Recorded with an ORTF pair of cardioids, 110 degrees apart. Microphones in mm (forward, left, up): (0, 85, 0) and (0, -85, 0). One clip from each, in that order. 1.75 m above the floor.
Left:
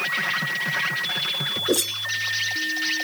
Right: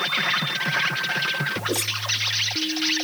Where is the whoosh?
35° left.